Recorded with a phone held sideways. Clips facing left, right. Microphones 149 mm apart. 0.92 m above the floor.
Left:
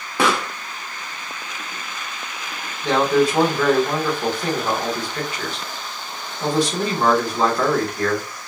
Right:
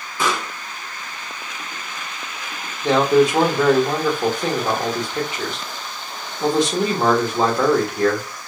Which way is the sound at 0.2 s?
75° left (ahead or behind).